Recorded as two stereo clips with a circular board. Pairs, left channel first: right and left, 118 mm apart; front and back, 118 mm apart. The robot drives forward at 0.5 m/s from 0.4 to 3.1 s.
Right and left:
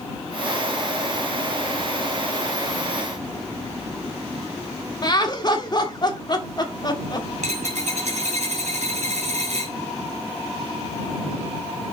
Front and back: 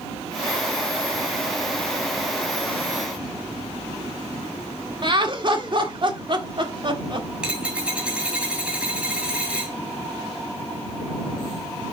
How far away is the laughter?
About 1.6 m.